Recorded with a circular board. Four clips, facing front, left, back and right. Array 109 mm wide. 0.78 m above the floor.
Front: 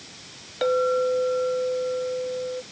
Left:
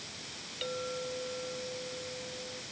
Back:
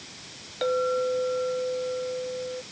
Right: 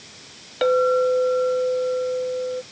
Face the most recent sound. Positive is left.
turn(degrees=-75)